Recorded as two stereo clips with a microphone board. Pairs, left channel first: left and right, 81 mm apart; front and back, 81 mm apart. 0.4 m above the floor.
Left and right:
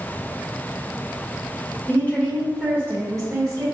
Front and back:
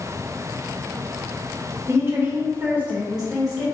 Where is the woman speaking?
140° left, 1.1 m; by 3.6 s 90° right, 1.5 m.